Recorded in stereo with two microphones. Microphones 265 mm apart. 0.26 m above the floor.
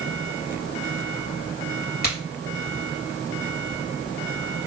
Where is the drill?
I don't hear a drill.